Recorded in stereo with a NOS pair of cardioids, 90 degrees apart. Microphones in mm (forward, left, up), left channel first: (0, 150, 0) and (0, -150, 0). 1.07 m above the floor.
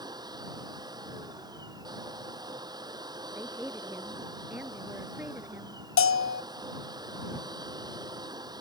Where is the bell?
45° left.